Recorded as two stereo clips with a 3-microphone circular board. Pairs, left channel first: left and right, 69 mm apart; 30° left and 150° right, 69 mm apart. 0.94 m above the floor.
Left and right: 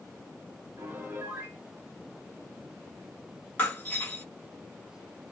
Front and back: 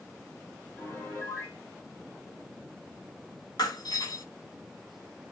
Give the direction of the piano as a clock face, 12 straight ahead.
1 o'clock.